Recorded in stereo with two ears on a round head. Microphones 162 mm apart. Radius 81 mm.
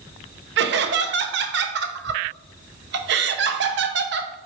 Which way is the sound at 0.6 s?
65° right (ahead or behind).